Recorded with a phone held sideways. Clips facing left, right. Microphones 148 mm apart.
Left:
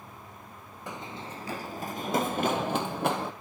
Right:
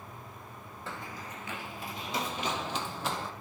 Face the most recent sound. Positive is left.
turn(degrees=55)  # may be behind; listen again after turning